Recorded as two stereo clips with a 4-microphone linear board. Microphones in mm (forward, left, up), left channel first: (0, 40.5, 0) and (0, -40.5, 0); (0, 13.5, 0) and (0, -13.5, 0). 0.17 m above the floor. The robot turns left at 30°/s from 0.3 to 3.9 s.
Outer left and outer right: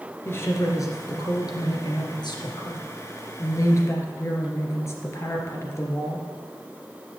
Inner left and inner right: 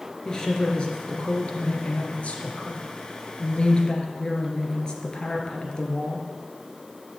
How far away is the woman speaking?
About 2.5 m.